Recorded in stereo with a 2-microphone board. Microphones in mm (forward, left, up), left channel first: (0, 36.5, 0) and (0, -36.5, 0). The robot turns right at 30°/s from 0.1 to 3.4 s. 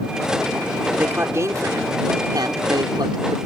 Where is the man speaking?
150° right; by 3.4 s 80° right.